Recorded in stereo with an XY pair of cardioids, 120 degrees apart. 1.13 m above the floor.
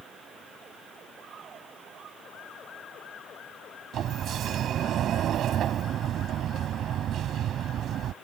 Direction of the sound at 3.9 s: 60° right.